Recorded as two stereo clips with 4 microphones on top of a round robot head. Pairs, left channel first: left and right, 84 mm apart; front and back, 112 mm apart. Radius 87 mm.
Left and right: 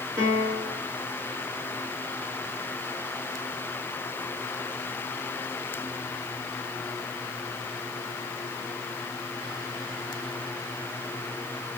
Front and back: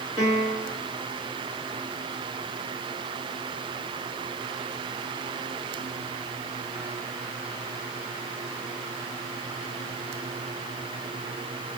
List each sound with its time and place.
0.2 s a piano: 45° right, 2.5 m